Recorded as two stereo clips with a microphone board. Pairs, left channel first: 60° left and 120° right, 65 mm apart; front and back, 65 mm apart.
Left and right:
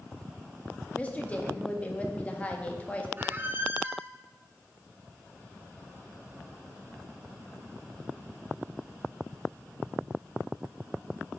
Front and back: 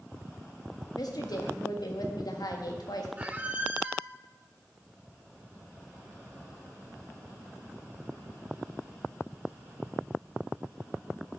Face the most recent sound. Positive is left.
turn(degrees=-135)